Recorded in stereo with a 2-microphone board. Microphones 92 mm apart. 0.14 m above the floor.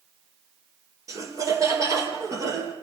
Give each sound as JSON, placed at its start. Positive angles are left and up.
{"t": 1.1, "sound": "laughter", "side_deg": -35, "distance_m": 4.0}